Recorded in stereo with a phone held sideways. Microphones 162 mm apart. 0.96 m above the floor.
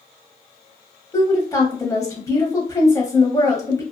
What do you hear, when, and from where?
1.1 s a woman speaking: 20° left (ahead or behind), 0.7 m